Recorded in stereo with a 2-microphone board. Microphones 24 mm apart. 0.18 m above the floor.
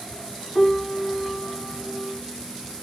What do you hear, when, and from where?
0.6 s a piano: 20° left (ahead or behind), 0.9 m